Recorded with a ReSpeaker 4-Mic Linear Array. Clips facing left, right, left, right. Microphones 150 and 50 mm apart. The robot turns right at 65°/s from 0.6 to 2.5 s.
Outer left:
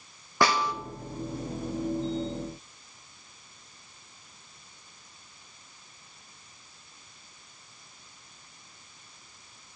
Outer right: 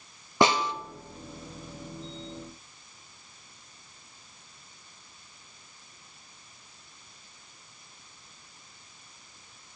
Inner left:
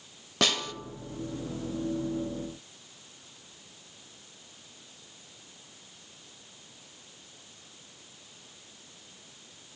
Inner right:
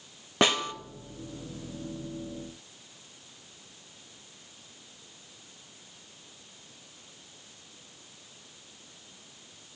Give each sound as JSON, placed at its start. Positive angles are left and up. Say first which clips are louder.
{"t": 0.4, "sound": "a snare drum", "louder": "outer right 2 dB, inner right 3 dB", "side_deg": -20, "distance_m": 0.5}